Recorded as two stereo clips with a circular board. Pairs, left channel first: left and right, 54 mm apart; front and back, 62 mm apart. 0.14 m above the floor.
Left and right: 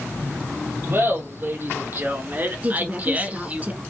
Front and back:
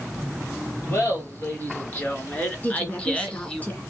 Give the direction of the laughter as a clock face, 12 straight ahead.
2 o'clock.